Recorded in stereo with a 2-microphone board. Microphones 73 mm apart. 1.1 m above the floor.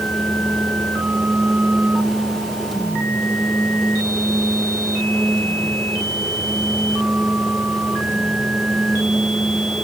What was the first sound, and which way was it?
Only background noise.